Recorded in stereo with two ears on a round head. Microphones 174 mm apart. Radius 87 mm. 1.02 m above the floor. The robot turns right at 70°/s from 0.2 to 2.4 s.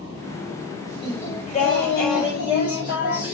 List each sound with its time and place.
1.0 s singing: 5° right, 6.5 m; by 3.3 s 95° left, 6.5 m